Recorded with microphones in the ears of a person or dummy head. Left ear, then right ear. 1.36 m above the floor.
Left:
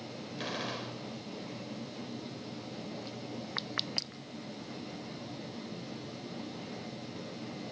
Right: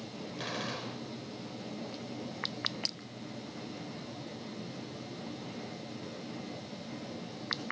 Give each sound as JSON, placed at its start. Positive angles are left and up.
{"t": 0.4, "sound": "a gunshot", "side_deg": 0, "distance_m": 3.5}